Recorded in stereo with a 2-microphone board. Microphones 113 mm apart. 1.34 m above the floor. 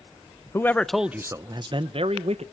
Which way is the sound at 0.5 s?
25° left (ahead or behind).